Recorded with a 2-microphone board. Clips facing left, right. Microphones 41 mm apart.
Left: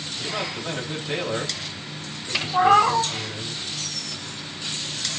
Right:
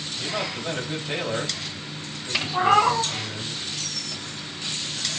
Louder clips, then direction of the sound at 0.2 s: Even; 15° right (ahead or behind).